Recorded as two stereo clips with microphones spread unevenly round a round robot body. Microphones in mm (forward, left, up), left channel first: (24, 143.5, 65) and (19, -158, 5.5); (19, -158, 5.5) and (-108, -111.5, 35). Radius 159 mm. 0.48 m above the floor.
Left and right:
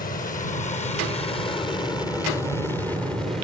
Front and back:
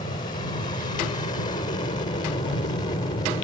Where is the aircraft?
25° left; by 3.4 s 15° right.